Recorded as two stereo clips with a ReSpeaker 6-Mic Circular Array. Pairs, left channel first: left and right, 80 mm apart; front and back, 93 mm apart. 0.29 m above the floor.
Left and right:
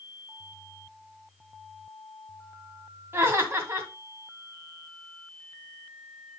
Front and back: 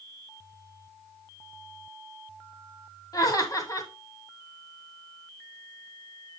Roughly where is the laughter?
Ahead right.